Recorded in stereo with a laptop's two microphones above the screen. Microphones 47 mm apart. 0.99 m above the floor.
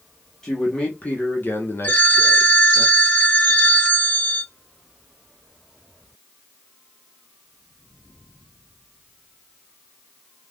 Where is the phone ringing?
30° left (ahead or behind), 1.2 m.